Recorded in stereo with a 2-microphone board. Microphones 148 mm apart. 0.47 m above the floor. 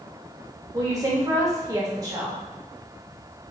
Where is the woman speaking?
25° right (ahead or behind), 1.1 m.